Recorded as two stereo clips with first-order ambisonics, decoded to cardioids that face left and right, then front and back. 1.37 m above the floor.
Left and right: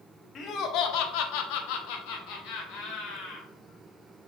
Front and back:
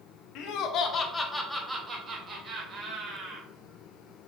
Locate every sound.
0.3 s laughter: 30° left, 0.6 m; by 3.5 s 125° left, 1.5 m